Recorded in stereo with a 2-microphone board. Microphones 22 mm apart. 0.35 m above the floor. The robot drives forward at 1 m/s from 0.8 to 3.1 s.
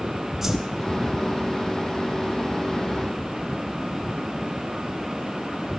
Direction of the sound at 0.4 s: 10° right (ahead or behind).